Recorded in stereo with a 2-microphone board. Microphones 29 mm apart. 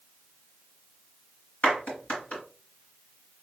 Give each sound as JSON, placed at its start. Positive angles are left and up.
{"t": 1.6, "sound": "a clap", "side_deg": 70, "distance_m": 3.5}